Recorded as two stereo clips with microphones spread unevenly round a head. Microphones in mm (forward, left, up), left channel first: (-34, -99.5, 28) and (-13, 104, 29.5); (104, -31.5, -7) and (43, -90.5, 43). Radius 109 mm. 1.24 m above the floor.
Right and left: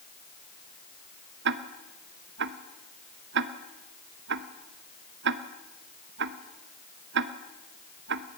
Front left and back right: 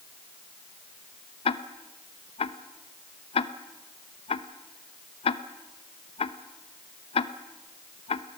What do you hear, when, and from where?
1.4 s ticking: 45° left, 0.9 m